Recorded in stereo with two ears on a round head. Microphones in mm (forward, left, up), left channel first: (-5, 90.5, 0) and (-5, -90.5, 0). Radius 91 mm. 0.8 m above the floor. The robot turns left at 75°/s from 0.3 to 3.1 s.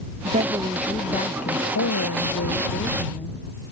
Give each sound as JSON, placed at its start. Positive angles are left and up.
{"t": 0.2, "sound": "a woman speaking", "azimuth_deg": -145}